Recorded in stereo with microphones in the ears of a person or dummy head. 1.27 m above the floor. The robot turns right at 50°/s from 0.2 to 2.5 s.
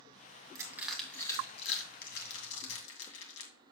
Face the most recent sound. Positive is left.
turn(degrees=75)  # may be behind; listen again after turning